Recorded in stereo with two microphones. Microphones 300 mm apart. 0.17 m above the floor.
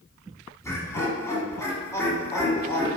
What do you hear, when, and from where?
0.6 s laughter: 10° left (ahead or behind), 1.2 m